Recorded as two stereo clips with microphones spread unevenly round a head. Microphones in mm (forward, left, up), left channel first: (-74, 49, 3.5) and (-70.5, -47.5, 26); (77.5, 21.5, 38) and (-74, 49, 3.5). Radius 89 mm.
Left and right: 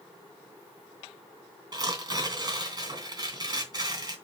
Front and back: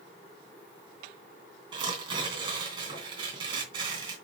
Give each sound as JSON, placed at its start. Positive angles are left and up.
{"t": 1.7, "sound": "tearing paper", "azimuth_deg": -120, "distance_m": 2.5}